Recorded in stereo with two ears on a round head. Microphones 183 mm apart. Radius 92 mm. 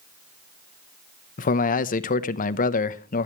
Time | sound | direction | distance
1.4 | a man speaking | 40° left (ahead or behind) | 0.7 m